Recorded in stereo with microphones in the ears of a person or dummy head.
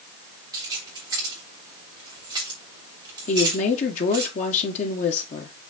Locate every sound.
0.5 s keys jangling: 20° right (ahead or behind), 3 m
3.3 s a woman speaking: 40° left (ahead or behind), 1.6 m